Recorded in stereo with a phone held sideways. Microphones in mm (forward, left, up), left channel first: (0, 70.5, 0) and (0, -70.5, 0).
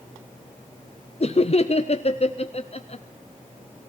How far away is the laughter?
About 0.6 m.